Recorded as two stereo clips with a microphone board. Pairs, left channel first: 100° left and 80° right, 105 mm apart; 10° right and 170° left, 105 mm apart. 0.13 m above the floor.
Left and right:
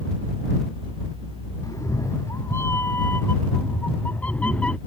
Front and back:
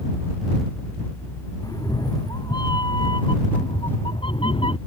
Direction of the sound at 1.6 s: 40° left.